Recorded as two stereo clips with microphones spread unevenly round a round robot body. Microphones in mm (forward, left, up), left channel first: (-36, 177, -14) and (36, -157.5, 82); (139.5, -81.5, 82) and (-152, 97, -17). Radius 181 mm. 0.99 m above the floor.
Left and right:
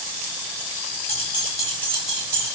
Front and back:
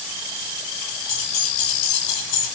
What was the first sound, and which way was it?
Keys jangling, 30° left.